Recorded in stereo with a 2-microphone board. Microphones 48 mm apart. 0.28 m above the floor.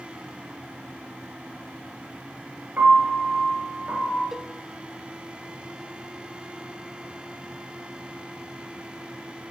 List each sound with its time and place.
2.8 s a piano: 40° right (ahead or behind), 3 m
4.3 s a cowbell: 10° right (ahead or behind), 0.6 m